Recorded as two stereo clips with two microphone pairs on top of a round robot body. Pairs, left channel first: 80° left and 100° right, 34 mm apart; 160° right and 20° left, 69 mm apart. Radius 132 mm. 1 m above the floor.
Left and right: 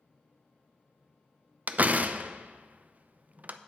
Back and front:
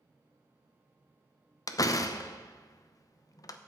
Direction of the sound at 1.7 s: 130° right.